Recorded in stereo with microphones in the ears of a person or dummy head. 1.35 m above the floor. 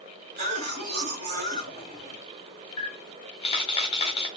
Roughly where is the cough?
Right.